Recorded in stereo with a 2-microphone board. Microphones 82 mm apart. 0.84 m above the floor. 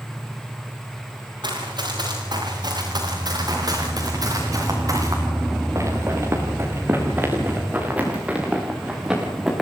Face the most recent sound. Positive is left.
turn(degrees=0)  # may be behind; listen again after turning